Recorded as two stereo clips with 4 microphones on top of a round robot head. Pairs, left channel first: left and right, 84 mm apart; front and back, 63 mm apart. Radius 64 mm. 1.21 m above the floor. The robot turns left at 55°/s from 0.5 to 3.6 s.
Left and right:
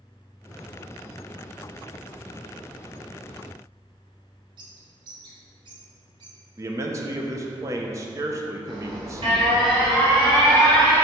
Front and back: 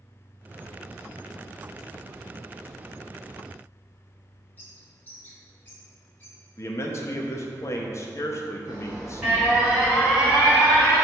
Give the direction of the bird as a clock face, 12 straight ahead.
2 o'clock.